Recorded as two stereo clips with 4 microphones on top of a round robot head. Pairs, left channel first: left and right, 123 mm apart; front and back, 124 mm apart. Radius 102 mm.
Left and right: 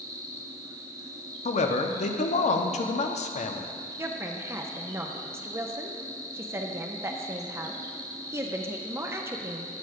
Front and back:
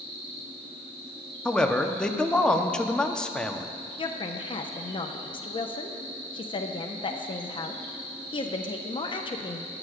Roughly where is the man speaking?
Left.